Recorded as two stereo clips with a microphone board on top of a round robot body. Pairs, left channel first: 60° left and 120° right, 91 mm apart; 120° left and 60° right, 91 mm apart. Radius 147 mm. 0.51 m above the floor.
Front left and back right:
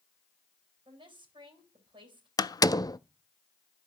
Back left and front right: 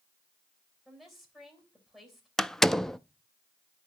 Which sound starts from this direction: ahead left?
A door slam, at 2.4 s.